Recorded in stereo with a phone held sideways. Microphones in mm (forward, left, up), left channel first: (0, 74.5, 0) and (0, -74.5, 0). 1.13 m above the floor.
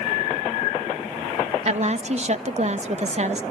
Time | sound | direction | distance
1.6 | a woman speaking | 50° right (ahead or behind) | 1.1 m